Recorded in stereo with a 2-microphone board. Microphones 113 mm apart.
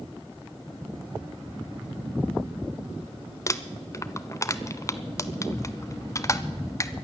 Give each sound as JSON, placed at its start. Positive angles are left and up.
{"t": 3.5, "sound": "crumpling", "side_deg": 30, "distance_m": 0.6}